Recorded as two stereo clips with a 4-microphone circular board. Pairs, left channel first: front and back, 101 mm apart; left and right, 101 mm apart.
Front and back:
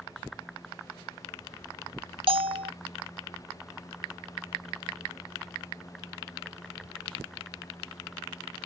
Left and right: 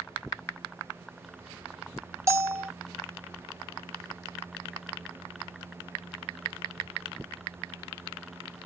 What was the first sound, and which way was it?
A bell, 150° right.